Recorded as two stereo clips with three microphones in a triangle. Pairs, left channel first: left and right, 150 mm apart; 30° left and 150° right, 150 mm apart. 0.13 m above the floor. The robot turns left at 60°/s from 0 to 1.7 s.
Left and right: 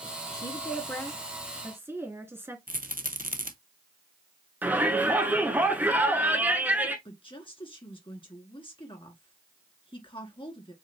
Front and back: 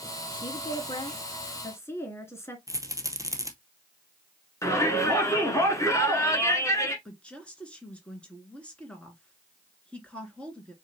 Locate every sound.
0.3 s a woman speaking: 55° left, 1.3 m; by 2.6 s 30° right, 1.3 m
2.7 s a rattle: 80° right, 0.8 m
4.6 s a shout: 20° right, 1.4 m
7.0 s a woman speaking: 105° left, 1.7 m